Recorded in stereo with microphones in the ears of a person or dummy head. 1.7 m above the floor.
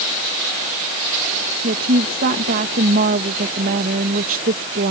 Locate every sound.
1.6 s a woman speaking: 45° right (ahead or behind)